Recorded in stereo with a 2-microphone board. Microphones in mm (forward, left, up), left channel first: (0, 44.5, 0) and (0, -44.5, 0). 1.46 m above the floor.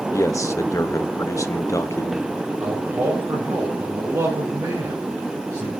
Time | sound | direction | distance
0.1 | a man speaking | 35° left (ahead or behind) | 0.9 m
2.6 | a man speaking | 40° right (ahead or behind) | 5.5 m